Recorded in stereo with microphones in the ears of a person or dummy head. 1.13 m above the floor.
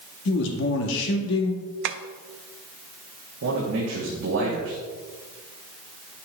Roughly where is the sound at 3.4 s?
Right.